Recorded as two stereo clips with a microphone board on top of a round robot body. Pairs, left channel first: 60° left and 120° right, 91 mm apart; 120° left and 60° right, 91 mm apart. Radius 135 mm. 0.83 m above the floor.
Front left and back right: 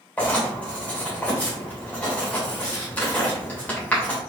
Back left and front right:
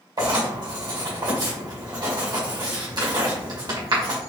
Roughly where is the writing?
Ahead.